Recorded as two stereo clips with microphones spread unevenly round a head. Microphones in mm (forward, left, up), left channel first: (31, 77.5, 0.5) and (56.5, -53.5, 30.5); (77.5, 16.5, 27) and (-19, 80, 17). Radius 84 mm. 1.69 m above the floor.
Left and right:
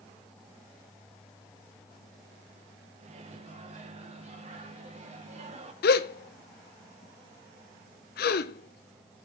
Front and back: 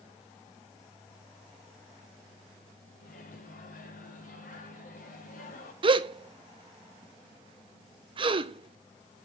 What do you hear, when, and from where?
3.0 s a microwave: 45° right, 1.6 m
5.8 s a gasp: 105° left, 0.6 m